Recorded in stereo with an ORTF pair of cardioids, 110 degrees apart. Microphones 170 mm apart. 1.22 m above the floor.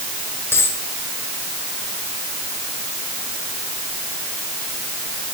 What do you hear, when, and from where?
0.5 s a dropped coin: 15° left, 5 m